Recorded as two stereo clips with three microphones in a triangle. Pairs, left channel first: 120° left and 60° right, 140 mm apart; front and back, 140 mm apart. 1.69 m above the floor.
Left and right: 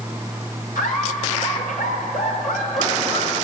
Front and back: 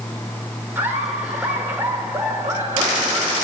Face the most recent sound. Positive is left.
turn(degrees=105)